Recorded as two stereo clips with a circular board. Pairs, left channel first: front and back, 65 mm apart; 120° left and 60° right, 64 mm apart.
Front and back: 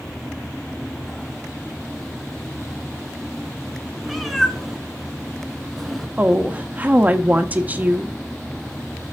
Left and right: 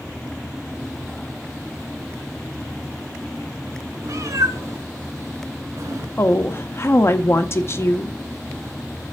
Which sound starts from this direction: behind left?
A woman speaking, at 6.2 s.